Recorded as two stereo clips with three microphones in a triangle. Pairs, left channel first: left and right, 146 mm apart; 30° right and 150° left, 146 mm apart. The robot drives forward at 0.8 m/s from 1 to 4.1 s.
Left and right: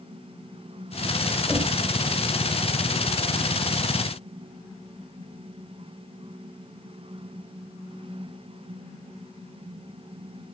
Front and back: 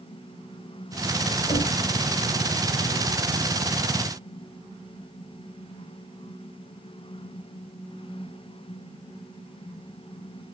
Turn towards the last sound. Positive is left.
turn(degrees=-30)